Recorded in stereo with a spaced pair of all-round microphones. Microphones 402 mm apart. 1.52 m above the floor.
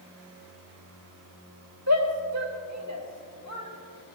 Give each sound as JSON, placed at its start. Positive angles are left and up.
{"t": 1.9, "sound": "a shout", "side_deg": -50, "distance_m": 2.5}